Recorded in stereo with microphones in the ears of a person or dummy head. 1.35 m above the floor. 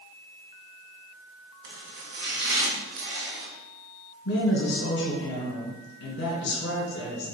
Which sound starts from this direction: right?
Chopping, at 1.6 s.